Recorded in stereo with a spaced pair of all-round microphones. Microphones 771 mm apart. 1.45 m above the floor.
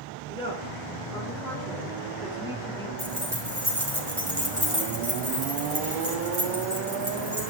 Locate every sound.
0.3 s a woman speaking: 5° left (ahead or behind), 4.5 m; by 2.9 s 5° right (ahead or behind), 2.5 m
3.0 s keys jangling: 30° right (ahead or behind), 3.5 m